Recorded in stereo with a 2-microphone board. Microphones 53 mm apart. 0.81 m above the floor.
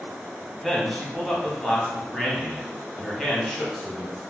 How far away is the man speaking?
About 0.9 m.